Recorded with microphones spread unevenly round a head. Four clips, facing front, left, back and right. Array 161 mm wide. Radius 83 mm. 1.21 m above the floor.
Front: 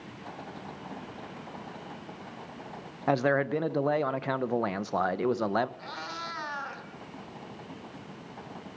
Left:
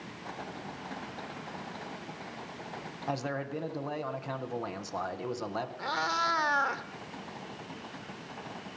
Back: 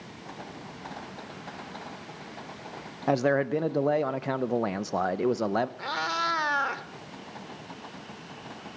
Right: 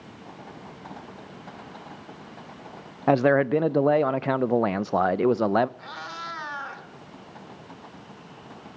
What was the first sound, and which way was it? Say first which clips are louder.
A man speaking: right 16 dB, back 1 dB; 100° right.